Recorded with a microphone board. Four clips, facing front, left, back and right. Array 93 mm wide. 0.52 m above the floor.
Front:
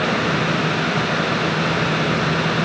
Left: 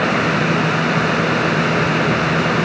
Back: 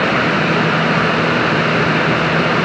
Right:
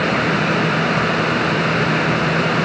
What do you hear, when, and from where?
Only background noise.